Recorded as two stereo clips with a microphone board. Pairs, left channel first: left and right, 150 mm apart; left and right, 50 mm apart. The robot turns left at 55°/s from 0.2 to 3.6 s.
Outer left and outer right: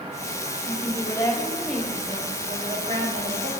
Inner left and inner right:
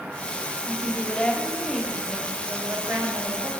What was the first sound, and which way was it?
A woman speaking, 60° left.